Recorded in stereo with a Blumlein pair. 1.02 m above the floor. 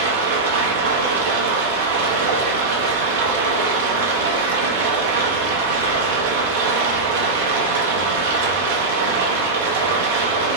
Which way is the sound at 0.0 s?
55° right.